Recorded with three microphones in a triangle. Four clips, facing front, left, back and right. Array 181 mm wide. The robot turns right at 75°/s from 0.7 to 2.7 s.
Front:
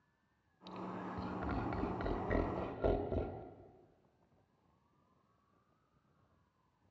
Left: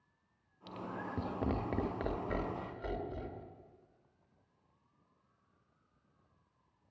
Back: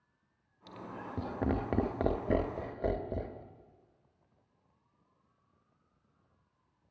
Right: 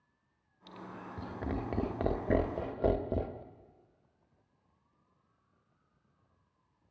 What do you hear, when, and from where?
0.7 s laughter: 110° left, 1.8 m; by 3.4 s 100° right, 1.8 m